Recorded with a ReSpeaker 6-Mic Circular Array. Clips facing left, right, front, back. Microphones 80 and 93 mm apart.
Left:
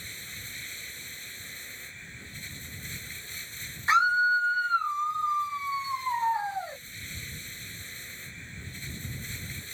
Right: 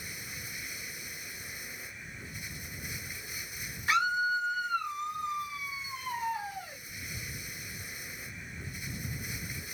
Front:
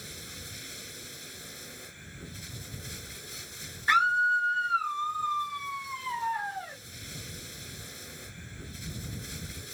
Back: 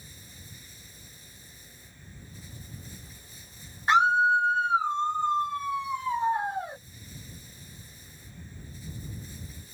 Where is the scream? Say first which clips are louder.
Left 6 dB, back 3 dB; 125° left.